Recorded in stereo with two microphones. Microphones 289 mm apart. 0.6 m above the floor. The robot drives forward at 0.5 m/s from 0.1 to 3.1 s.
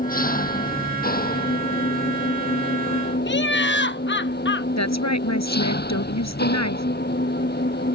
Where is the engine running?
30° left (ahead or behind); by 8.0 s 35° left (ahead or behind).